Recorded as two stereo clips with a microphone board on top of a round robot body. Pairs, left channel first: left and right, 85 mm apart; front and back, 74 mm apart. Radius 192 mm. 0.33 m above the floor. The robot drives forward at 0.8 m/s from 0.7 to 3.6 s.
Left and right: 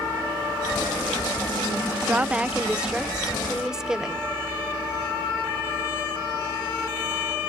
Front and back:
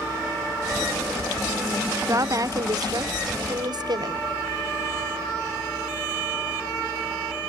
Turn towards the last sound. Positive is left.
turn(degrees=-170)